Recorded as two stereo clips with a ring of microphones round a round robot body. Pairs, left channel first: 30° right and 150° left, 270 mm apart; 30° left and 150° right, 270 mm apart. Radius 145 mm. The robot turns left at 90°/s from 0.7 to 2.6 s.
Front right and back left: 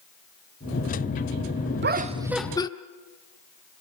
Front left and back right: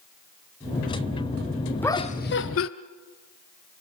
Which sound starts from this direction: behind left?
Laughter, at 1.8 s.